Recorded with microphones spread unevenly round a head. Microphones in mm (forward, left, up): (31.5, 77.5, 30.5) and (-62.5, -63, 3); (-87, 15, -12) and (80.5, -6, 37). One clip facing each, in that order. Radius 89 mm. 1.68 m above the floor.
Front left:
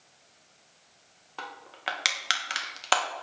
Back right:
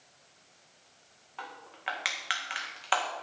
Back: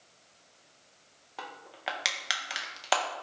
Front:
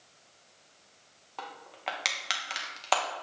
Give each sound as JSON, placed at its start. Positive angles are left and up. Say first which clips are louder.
{"t": 1.4, "sound": "crushing", "louder": "front left 3 dB, front 1 dB", "azimuth_deg": 90, "distance_m": 1.7}